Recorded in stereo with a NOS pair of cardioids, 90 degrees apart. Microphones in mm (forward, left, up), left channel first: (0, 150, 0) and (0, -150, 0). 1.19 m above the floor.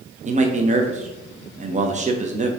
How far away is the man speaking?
About 0.7 m.